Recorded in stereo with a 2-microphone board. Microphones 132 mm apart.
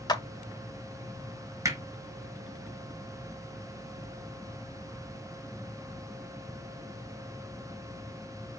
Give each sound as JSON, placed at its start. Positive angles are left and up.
{"t": 0.1, "sound": "a clap", "side_deg": 30, "distance_m": 0.7}
{"t": 1.6, "sound": "hammering", "side_deg": -25, "distance_m": 1.3}